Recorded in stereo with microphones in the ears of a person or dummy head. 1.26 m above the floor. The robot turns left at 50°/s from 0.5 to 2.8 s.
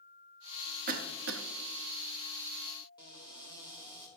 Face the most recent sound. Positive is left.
turn(degrees=25)  # may be behind; listen again after turning